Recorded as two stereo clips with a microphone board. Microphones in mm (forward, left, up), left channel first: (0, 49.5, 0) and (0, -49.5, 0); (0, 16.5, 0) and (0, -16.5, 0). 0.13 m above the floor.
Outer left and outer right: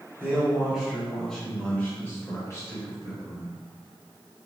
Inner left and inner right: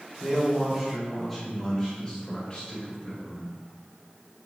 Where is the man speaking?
15° right (ahead or behind), 1.8 m; by 3.5 s 45° left (ahead or behind), 2 m.